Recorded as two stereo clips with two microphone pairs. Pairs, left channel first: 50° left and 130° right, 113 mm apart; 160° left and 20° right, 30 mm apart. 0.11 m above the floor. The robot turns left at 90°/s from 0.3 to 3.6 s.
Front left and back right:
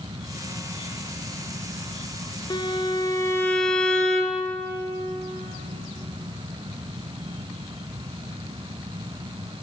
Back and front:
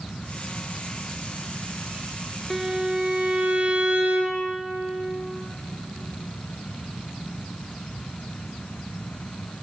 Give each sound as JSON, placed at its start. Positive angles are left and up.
{"t": 2.5, "sound": "a violin", "azimuth_deg": 75, "distance_m": 0.7}